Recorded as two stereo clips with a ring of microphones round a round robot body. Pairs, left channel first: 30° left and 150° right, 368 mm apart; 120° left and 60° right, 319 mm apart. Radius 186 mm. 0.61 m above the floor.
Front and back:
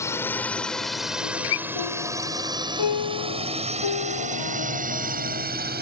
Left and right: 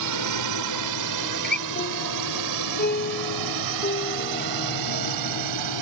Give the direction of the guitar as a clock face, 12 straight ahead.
10 o'clock.